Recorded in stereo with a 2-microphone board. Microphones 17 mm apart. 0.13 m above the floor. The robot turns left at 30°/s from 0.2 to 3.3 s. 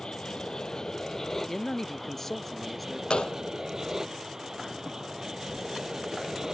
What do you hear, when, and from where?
0.0 s an aircraft: 65° left; by 6.5 s 30° right
1.5 s a man speaking: 50° left; by 3.0 s 5° left
3.1 s a gunshot: 75° left (ahead or behind); by 3.4 s 70° left (ahead or behind)